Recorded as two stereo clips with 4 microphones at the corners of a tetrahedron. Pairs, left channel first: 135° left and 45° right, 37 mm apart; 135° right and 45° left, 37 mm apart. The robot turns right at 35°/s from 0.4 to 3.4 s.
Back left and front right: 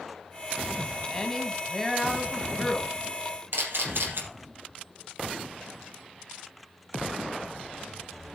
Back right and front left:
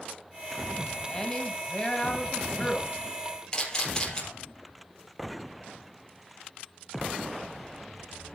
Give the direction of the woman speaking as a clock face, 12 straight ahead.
6 o'clock.